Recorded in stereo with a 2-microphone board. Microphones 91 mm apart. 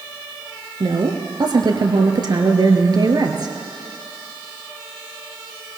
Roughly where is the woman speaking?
Right.